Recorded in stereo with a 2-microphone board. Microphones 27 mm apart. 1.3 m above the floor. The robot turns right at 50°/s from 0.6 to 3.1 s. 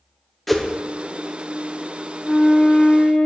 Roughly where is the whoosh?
Centre.